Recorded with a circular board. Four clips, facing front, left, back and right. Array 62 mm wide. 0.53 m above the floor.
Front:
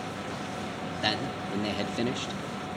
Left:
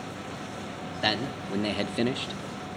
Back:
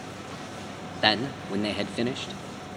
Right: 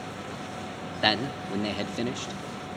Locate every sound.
1.0 s a man speaking: 150° right, 0.9 m; by 2.4 s 95° left, 0.9 m